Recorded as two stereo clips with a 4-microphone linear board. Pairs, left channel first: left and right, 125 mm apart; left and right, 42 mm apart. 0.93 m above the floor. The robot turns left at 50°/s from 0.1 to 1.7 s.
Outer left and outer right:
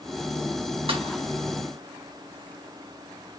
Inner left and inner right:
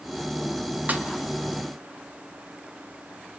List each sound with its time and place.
0.9 s a snare drum: 45° right (ahead or behind), 1.7 m; by 1.1 s 40° right (ahead or behind), 1.7 m